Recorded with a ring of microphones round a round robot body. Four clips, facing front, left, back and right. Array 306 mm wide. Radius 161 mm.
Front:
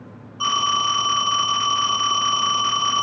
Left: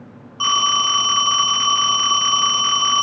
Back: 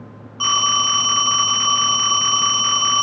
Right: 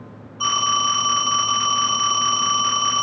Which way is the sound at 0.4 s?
120° left.